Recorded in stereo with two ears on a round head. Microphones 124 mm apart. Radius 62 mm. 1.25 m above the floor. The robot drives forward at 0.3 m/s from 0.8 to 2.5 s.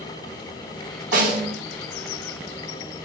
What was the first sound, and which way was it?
A snare drum, 60° right (ahead or behind).